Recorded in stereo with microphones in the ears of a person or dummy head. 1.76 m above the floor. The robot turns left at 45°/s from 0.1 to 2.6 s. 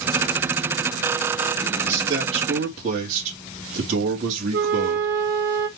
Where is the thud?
I don't hear a thud.